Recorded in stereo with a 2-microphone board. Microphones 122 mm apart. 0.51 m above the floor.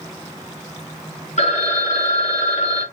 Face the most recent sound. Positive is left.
turn(degrees=60)  # may be behind; listen again after turning